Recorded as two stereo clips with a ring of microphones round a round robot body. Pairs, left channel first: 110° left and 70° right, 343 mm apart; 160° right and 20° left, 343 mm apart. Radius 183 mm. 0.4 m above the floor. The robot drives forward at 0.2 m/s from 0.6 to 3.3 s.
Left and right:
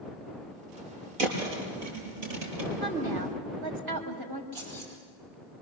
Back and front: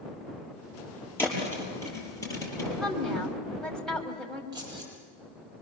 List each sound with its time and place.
1.2 s a thud: 75° right, 6 m
2.8 s a woman speaking: 70° right, 3 m
4.5 s keys jangling: 55° right, 8 m